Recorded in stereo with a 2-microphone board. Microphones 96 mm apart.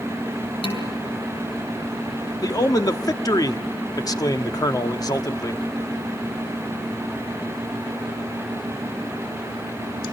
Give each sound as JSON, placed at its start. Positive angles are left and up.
{"t": 0.6, "sound": "dishes clattering", "side_deg": 80, "distance_m": 6.0}
{"t": 2.4, "sound": "a man speaking", "side_deg": 40, "distance_m": 1.2}